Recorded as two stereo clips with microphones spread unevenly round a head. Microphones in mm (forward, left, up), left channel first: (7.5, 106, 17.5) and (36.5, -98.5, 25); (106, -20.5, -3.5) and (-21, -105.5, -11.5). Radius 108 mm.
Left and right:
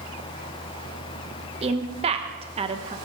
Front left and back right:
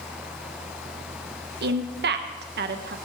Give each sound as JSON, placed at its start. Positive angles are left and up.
{"t": 1.6, "sound": "a woman speaking", "azimuth_deg": -145, "distance_m": 1.1}